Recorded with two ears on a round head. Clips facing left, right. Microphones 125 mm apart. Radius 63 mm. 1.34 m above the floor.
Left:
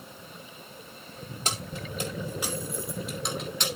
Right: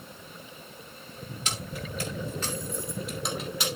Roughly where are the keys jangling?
Left.